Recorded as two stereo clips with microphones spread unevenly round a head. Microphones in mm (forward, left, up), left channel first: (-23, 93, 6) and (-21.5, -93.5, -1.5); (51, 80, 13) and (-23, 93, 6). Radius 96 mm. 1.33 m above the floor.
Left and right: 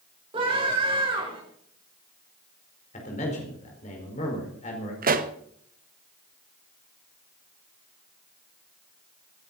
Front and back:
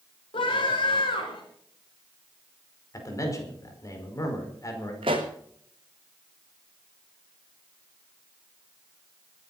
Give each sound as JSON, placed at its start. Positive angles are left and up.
{"t": 0.3, "sound": "a scream", "azimuth_deg": -25, "distance_m": 5.0}
{"t": 2.9, "sound": "a man speaking", "azimuth_deg": 35, "distance_m": 4.5}
{"t": 5.0, "sound": "a pop", "azimuth_deg": -135, "distance_m": 1.4}